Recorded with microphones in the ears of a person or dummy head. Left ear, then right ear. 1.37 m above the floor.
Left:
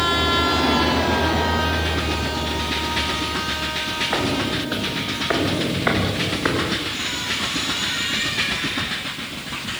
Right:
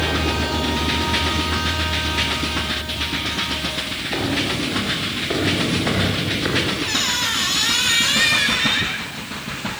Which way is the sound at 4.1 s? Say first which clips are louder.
Even; 60° left (ahead or behind).